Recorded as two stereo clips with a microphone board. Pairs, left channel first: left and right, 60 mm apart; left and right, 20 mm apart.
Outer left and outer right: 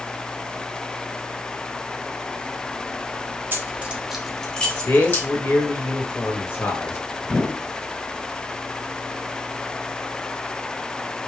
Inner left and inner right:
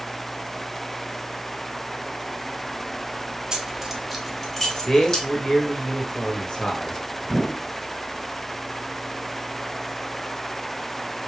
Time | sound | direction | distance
3.5 | keys jangling | 35° right (ahead or behind) | 0.8 m
4.9 | a man speaking | 40° left (ahead or behind) | 1.1 m
7.2 | a whoosh | 30° left (ahead or behind) | 1.9 m